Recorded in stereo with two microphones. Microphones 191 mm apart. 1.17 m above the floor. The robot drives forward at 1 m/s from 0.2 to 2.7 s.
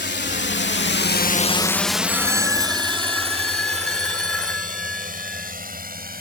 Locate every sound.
0.0 s a drone: 60° left (ahead or behind); by 6.2 s 50° right (ahead or behind)
2.1 s a phone ringing: 5° left (ahead or behind)